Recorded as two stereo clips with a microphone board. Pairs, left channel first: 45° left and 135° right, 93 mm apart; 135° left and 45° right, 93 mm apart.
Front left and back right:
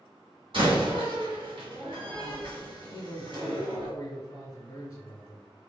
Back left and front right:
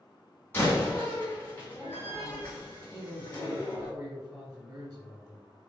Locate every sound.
0.5 s a door slam: 155° right, 1.8 m
2.9 s a man speaking: straight ahead, 1.4 m